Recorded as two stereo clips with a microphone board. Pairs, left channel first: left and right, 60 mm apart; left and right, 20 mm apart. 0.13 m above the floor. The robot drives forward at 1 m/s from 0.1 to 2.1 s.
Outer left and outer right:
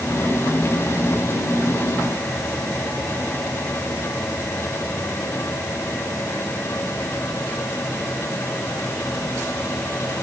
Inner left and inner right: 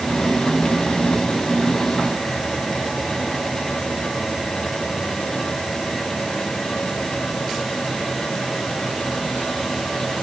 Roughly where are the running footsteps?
No running footsteps in this recording.